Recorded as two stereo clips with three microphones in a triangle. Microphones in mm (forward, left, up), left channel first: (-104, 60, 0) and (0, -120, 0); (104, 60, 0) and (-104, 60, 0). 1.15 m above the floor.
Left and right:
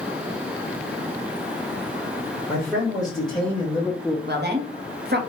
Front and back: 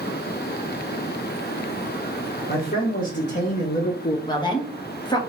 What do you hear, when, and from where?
2.5 s a man speaking: 30° left, 1.4 m; by 4.2 s 50° left, 0.5 m
4.3 s a woman speaking: 60° right, 1.0 m